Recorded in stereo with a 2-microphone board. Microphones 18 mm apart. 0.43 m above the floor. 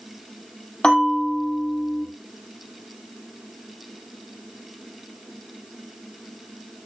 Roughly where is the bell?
Left.